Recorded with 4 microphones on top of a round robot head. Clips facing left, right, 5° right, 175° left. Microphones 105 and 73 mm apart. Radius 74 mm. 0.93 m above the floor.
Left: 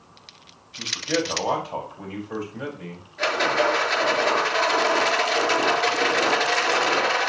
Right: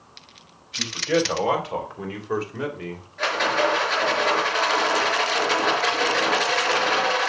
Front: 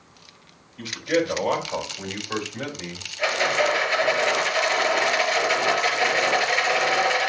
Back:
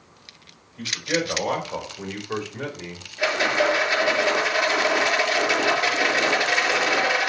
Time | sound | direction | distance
0.8 | a man speaking | 110° right | 4 m
3.2 | a rattle | 175° left | 6 m